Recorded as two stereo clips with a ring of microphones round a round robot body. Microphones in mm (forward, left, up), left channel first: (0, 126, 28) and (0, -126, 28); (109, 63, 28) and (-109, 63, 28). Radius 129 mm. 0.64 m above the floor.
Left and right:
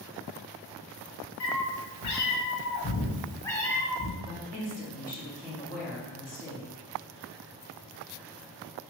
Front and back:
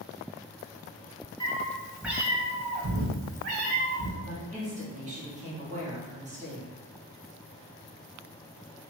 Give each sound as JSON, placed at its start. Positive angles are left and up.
{"t": 1.4, "sound": "a cat meowing", "azimuth_deg": 70, "distance_m": 0.9}
{"t": 4.2, "sound": "a woman speaking", "azimuth_deg": 135, "distance_m": 1.3}